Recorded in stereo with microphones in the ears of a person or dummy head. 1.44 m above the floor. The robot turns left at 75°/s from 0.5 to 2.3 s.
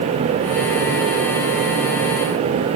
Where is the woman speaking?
No woman speaking in this recording.